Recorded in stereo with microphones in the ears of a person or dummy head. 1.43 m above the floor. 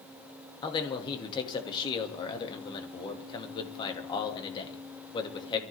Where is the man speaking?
25° left (ahead or behind), 2 m.